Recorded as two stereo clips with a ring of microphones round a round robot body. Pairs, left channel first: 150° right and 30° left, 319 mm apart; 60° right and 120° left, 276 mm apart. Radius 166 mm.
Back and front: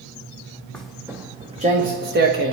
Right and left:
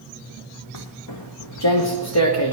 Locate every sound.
0.7 s footsteps: 65° right, 1.7 m; by 2.5 s 25° right, 2.5 m